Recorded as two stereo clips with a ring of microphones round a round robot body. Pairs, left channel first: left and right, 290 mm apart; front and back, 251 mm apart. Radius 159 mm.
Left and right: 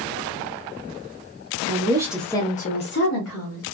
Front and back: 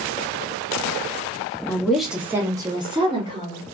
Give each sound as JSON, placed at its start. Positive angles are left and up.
{"t": 1.7, "sound": "a woman speaking", "azimuth_deg": -80, "distance_m": 0.8}